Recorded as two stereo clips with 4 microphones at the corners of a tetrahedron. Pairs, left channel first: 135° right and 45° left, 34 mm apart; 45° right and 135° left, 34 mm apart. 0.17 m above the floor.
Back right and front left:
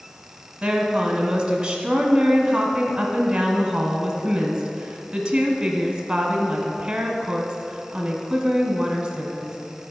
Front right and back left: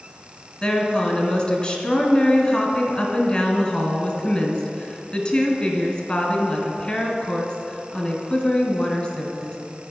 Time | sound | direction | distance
0.6 | a woman speaking | 10° right | 1.3 m